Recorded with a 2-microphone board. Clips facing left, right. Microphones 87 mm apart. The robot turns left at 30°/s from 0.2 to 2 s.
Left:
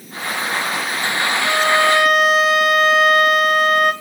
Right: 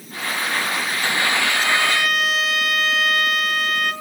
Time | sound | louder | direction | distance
1.4 | a violin | left 5 dB | 50° left (ahead or behind) | 1.9 m